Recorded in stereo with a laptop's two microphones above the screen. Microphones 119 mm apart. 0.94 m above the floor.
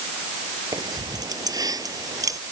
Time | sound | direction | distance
0.7 | keys jangling | 35° right (ahead or behind) | ?